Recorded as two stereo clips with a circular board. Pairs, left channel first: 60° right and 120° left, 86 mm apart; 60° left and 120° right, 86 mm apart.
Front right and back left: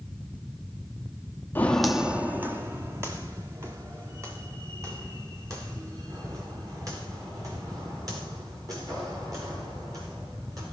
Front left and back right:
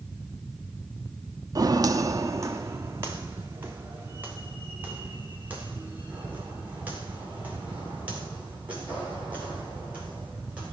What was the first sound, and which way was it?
Footsteps, 120° right.